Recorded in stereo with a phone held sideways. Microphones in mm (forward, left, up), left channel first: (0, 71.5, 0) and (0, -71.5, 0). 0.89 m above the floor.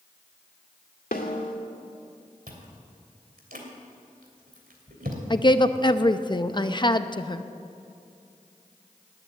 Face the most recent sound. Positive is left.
turn(degrees=35)  # may be behind; listen again after turning